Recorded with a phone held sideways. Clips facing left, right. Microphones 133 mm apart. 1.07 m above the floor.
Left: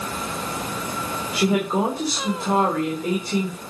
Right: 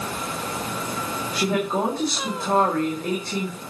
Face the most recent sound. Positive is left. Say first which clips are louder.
# left 3 dB
turn(degrees=10)  # may be behind; listen again after turning